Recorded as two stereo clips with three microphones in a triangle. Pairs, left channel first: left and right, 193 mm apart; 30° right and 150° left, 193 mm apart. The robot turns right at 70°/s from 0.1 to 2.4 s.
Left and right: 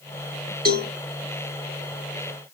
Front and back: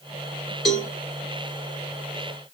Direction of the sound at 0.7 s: 120° right.